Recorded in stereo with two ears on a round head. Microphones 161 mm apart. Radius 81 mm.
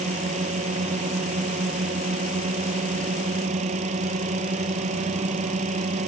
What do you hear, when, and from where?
0.0 s a drone: 45° right (ahead or behind)